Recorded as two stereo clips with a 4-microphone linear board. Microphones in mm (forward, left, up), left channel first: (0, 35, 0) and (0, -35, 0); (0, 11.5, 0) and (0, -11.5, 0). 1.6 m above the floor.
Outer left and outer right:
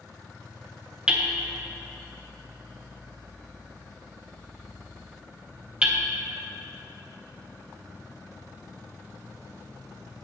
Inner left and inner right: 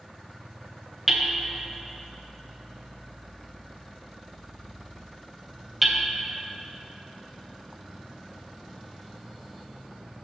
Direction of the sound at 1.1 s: 10° right (ahead or behind).